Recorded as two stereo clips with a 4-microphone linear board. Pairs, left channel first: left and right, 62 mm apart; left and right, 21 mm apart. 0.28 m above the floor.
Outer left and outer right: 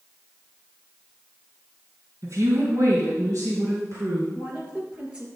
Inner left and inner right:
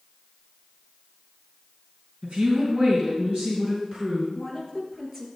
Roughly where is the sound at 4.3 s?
Centre.